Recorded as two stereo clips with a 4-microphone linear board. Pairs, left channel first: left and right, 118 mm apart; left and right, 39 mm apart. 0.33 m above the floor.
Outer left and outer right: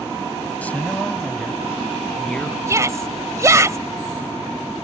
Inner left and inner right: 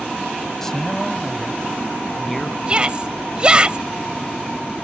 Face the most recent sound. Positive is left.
turn(degrees=-25)  # may be behind; listen again after turning